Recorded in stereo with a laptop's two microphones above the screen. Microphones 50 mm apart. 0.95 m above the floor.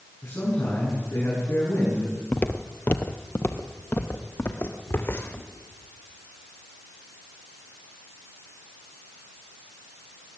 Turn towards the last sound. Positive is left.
turn(degrees=55)  # may be behind; listen again after turning